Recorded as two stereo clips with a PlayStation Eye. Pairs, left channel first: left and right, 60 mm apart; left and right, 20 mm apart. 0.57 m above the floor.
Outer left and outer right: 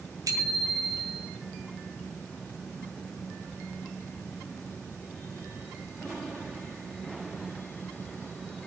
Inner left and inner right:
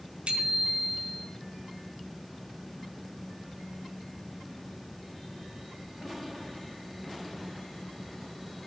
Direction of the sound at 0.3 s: 75° right (ahead or behind).